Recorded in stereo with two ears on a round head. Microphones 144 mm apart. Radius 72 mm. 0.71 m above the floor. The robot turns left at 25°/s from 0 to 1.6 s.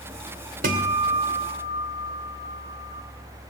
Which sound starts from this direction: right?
A guitar, at 0.6 s.